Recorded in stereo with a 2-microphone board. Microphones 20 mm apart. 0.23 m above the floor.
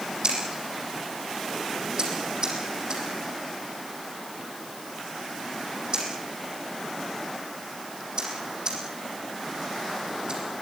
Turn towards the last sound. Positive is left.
turn(degrees=-45)  # may be behind; listen again after turning